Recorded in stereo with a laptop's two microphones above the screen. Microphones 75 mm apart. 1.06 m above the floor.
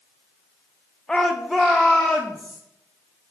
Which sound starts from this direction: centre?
A shout, at 1.1 s.